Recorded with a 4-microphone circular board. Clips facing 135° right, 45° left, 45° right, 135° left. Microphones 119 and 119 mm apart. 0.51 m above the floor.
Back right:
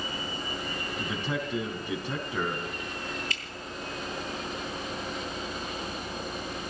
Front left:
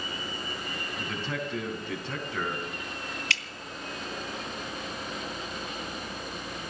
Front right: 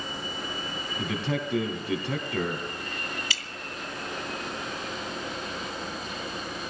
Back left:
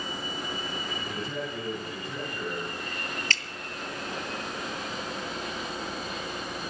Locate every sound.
1.0 s a man speaking: 60° right, 4.5 m
3.3 s dripping: 35° left, 0.8 m